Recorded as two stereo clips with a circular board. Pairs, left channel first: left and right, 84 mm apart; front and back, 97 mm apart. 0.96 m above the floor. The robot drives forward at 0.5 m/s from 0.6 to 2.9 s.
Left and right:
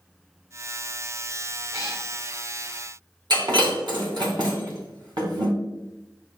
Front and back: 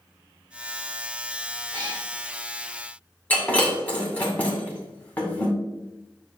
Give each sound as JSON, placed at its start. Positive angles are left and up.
{"t": 1.7, "sound": "a cat meowing", "azimuth_deg": -135, "distance_m": 2.5}
{"t": 3.3, "sound": "breaking glass", "azimuth_deg": -75, "distance_m": 2.5}